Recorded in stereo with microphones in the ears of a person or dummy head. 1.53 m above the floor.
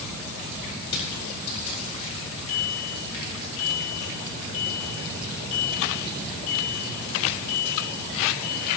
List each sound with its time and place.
0.9 s crushing: 85° left, 7.5 m
2.5 s a bicycle bell: 50° left (ahead or behind), 8 m